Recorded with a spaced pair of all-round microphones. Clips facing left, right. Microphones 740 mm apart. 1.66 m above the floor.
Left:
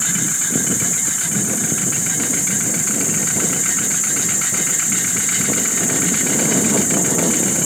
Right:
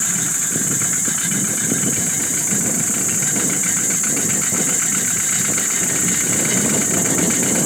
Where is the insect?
55° right (ahead or behind), 8.5 m.